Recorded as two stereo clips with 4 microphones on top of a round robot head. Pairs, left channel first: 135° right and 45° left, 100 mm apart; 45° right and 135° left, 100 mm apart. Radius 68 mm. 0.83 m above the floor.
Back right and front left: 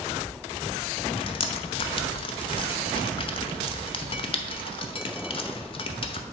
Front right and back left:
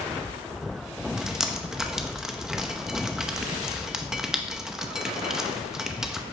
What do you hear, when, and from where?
1.2 s dripping: 140° right, 0.7 m